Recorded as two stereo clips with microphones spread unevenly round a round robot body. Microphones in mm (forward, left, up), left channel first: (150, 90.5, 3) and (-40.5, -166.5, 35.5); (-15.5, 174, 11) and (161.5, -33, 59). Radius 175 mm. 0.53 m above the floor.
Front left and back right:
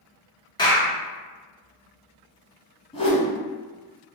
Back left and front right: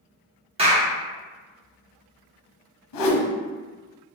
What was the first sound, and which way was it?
A clap, 15° left.